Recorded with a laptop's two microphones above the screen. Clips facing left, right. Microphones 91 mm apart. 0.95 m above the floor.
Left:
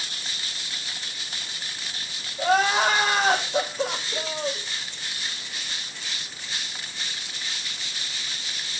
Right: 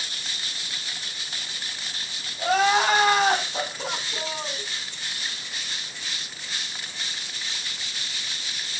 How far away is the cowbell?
No cowbell in this recording.